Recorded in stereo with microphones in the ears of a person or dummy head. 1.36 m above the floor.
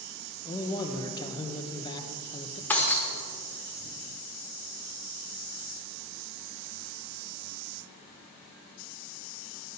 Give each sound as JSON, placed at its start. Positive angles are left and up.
{"t": 0.5, "sound": "a man speaking", "side_deg": 25, "distance_m": 0.7}
{"t": 2.7, "sound": "breaking glass", "side_deg": 5, "distance_m": 1.2}